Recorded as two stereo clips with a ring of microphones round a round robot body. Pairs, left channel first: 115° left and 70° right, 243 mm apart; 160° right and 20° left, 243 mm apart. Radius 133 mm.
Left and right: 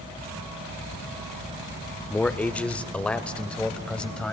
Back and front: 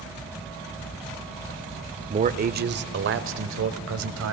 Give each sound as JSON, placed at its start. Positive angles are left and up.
{"t": 2.1, "sound": "a man speaking", "azimuth_deg": 35, "distance_m": 1.0}